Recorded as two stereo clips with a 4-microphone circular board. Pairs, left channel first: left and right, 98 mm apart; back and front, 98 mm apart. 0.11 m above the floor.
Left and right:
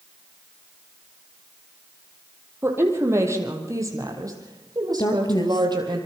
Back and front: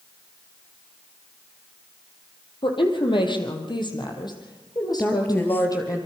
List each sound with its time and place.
2.6 s a woman speaking: 155° right, 4 m; by 6.0 s 130° right, 4 m
5.0 s a woman speaking: 115° left, 2.5 m